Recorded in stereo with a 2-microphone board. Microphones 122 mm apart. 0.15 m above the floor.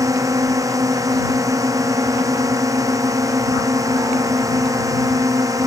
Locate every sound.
0.0 s a drone: 30° right (ahead or behind)